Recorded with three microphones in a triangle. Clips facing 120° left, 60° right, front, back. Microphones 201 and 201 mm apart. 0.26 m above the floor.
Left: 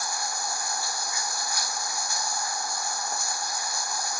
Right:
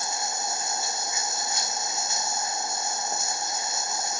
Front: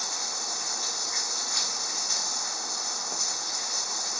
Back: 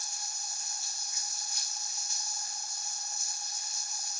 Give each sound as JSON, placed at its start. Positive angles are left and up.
{"t": 0.0, "sound": "running water", "azimuth_deg": 10}